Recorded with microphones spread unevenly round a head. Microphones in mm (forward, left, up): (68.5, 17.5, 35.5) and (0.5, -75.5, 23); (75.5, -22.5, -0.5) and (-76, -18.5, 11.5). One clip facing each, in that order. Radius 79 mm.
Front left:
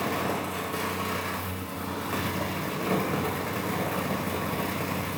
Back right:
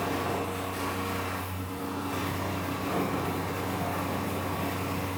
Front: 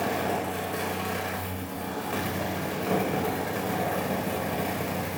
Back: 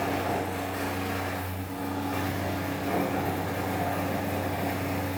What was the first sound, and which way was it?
A fan, 30° left.